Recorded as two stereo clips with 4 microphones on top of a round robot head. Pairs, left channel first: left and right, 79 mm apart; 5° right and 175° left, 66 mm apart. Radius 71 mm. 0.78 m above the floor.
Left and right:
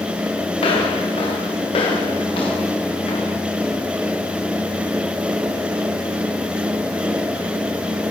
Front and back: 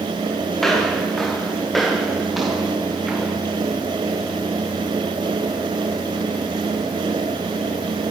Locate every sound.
0.6 s footsteps: 80° left, 8.5 m; by 3.4 s 95° left, 6.5 m